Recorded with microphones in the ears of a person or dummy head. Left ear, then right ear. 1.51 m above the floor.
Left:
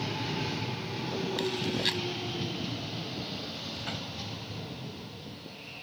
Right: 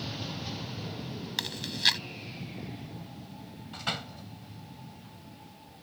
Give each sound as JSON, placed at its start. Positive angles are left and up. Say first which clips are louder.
{"t": 1.4, "sound": "chewing", "louder": "right 4 dB", "side_deg": -25}
{"t": 3.7, "sound": "a door slam", "louder": "right 2 dB", "side_deg": -35}